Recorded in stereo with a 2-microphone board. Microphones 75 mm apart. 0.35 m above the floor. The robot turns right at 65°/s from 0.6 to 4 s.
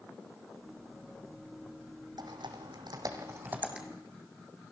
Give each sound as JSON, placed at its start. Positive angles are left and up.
{"t": 2.2, "sound": "typing on a keyboard", "side_deg": -65, "distance_m": 3.0}